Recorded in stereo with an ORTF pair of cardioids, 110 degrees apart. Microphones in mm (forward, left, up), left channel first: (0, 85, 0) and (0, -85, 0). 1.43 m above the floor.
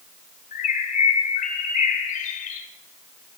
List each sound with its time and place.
0.5 s a bird: 50° left, 3 m